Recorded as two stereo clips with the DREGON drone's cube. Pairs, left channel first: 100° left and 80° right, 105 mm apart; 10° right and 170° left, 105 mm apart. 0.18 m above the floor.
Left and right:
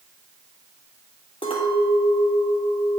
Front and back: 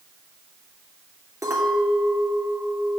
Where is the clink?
120° left, 3 m.